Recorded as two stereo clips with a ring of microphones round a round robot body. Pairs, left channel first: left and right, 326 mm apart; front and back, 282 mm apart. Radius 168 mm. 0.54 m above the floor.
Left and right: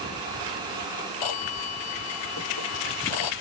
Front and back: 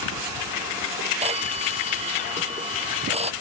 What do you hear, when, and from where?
1.2 s a phone ringing: 110° left